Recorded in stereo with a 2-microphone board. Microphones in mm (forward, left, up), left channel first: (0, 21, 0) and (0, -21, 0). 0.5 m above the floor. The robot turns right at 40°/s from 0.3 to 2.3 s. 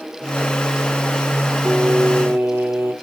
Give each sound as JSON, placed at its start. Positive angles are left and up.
{"t": 1.6, "sound": "singing", "side_deg": -70, "distance_m": 0.7}